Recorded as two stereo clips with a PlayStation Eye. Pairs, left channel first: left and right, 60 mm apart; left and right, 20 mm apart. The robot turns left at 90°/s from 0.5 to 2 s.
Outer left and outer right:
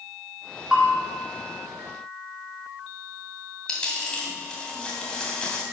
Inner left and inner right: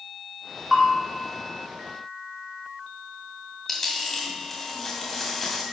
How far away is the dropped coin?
About 2 m.